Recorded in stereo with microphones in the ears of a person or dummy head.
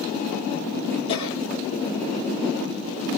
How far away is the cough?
About 3.5 m.